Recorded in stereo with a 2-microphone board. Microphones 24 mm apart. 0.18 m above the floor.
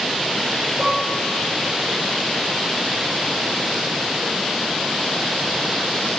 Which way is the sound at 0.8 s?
75° right (ahead or behind).